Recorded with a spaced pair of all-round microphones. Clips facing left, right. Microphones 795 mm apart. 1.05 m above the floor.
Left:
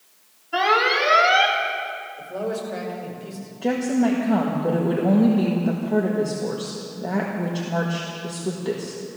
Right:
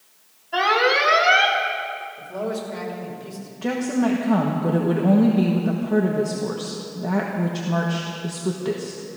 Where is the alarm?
15° right (ahead or behind), 1.3 m.